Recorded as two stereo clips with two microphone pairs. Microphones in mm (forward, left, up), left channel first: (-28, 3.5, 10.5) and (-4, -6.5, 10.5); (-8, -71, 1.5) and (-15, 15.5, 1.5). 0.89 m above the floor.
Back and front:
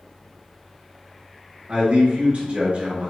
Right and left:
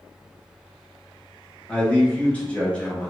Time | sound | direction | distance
1.7 | a man speaking | 20° right | 0.9 m